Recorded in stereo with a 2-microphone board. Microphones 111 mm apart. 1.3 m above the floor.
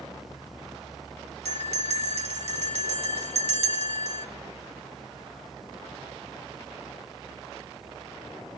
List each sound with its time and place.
1.4 s a bell: 70° right (ahead or behind), 1.7 m